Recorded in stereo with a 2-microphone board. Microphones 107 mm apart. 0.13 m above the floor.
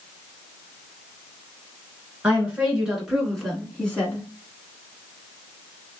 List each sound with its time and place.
2.2 s a woman speaking: 10° right (ahead or behind), 1.7 m; by 4.3 s 15° left (ahead or behind), 1.3 m